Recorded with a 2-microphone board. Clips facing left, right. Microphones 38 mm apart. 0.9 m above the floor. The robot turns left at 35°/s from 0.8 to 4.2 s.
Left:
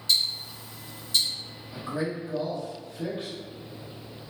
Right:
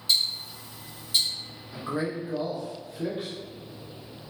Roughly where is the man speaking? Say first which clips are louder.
Right 1 dB; behind right.